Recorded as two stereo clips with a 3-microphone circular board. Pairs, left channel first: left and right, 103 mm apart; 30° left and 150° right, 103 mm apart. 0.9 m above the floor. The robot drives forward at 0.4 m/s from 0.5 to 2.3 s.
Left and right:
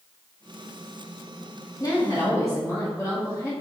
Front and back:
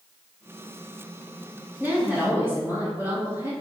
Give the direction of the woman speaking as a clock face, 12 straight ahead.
7 o'clock.